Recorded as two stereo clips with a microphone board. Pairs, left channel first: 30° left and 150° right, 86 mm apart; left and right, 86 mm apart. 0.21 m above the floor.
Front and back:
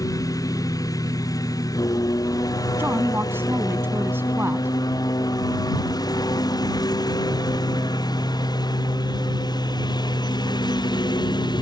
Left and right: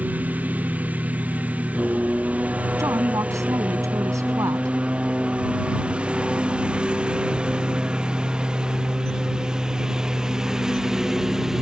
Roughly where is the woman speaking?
Right.